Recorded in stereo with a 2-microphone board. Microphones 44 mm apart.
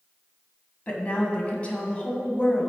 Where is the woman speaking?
30° left (ahead or behind), 1.2 m.